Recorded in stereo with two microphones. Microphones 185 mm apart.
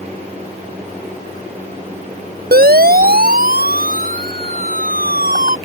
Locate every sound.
2.5 s a siren: 60° right (ahead or behind); by 5.6 s 50° right (ahead or behind)